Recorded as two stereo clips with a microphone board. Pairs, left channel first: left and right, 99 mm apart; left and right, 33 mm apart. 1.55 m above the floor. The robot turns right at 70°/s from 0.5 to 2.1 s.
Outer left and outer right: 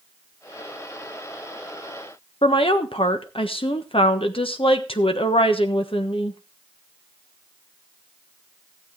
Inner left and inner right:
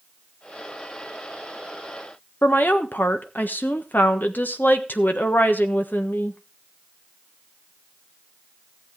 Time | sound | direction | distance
2.4 | a woman speaking | 75° left (ahead or behind) | 1.3 m